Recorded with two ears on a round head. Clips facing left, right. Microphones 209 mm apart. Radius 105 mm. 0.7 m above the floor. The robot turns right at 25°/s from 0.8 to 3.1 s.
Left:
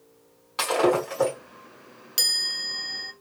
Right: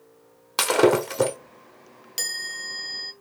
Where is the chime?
10° left (ahead or behind), 0.6 m; by 3.1 s 15° right (ahead or behind), 0.6 m.